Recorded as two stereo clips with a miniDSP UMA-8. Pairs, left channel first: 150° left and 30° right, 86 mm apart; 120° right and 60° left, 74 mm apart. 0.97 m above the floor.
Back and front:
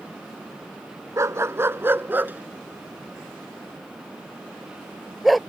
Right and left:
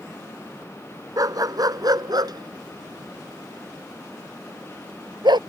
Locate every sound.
1.2 s a dog barking: 25° left; by 5.4 s 60° left